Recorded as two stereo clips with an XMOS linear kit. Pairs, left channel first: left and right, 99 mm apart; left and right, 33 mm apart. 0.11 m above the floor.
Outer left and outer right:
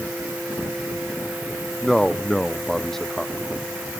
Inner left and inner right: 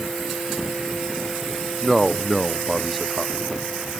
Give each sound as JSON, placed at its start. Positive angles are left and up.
{"t": 1.8, "sound": "a man speaking", "side_deg": 5}